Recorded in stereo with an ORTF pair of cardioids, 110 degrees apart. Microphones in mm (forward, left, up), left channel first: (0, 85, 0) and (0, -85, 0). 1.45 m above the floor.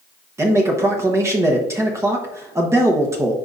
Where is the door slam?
No door slam in this recording.